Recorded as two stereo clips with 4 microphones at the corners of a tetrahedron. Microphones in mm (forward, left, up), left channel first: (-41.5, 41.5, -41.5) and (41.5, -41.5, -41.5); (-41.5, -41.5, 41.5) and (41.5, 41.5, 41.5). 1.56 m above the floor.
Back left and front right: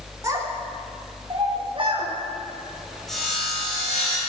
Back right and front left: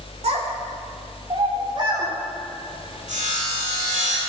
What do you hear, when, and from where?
0.2 s a child speaking: 15° left, 3 m; by 2.1 s 10° right, 4 m
3.1 s sawing: 45° left, 6 m